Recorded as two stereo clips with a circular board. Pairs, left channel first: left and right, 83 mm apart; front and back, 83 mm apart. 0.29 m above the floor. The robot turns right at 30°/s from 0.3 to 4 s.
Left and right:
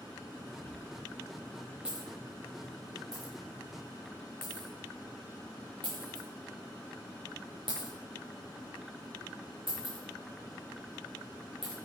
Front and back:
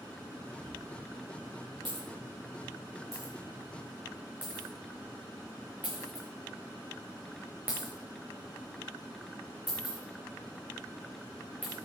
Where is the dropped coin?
155° left, 4.5 m; by 11.8 s 105° right, 4.5 m.